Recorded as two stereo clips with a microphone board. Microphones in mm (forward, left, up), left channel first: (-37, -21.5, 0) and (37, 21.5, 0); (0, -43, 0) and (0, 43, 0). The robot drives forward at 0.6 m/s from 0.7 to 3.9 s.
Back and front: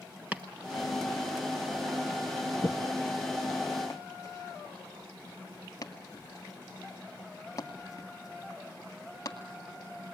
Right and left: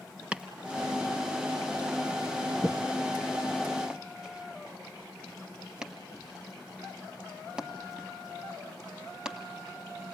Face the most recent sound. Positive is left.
turn(degrees=170)